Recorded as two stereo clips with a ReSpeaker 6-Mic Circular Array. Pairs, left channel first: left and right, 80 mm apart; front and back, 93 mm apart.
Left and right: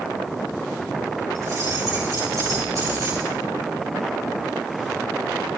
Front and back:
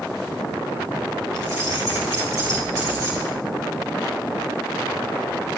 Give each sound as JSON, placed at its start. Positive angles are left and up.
{"t": 1.4, "sound": "keys jangling", "azimuth_deg": -135, "distance_m": 4.5}